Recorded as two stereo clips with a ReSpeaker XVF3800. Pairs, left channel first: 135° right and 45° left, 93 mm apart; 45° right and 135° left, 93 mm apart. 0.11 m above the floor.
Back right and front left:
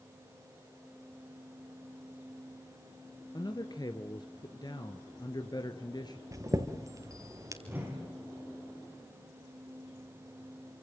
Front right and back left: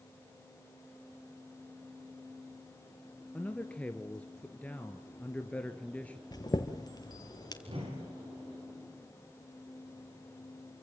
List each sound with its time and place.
3.3 s a man speaking: 115° right, 1.6 m
6.3 s a chime: 5° right, 2.5 m
7.7 s a whoosh: 115° left, 9.5 m